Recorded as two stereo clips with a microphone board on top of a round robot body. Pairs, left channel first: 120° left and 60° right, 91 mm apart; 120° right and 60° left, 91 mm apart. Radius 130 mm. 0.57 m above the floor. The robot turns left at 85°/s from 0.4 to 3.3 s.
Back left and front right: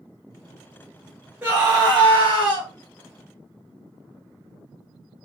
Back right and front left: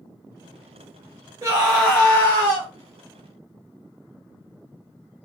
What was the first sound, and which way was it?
A scream, 20° left.